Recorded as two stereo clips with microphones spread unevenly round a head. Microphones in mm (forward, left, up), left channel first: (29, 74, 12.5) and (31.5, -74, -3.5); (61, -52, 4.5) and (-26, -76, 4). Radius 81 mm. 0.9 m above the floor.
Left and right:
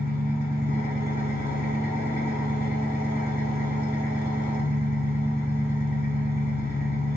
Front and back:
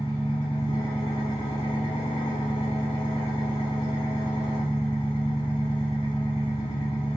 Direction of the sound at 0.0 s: 60° left.